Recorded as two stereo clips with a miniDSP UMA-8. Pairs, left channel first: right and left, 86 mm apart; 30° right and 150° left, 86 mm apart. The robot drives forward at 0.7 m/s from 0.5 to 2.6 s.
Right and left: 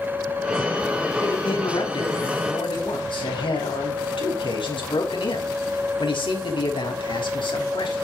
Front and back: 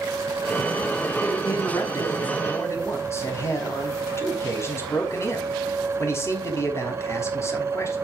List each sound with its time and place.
1.2 s a man speaking: 75° right, 5 m; by 8.0 s 85° right, 5 m